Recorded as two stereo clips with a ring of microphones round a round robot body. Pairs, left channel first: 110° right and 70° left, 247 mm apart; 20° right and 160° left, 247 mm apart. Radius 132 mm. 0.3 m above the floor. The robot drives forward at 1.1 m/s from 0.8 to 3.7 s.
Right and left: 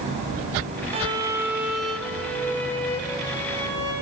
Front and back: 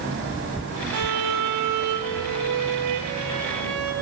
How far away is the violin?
About 1.0 m.